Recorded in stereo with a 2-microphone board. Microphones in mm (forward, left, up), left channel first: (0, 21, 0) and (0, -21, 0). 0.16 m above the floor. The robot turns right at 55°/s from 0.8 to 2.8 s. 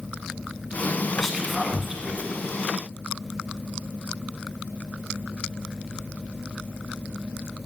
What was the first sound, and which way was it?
Whispering, 5° left (ahead or behind).